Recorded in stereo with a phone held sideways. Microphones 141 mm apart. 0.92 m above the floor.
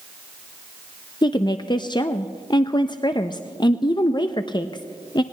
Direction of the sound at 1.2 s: 35° left (ahead or behind).